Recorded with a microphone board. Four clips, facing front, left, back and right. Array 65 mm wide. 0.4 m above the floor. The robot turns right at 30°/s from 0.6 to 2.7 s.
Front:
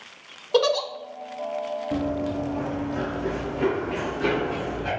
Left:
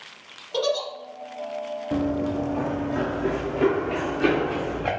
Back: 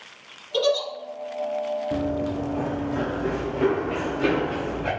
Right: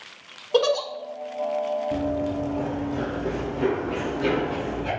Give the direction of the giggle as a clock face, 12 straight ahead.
1 o'clock.